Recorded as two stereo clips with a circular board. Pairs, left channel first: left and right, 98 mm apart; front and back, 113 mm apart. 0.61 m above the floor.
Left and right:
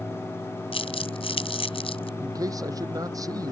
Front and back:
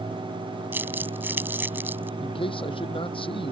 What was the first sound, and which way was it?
Crumpling, 110° left.